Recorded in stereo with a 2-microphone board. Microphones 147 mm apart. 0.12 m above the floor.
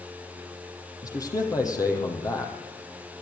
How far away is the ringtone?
No ringtone in this recording.